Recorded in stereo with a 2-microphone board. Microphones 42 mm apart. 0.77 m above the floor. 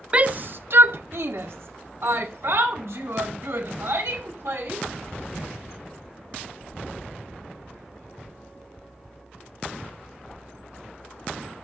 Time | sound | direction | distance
0.1 | a shout | 25° right (ahead or behind) | 0.6 m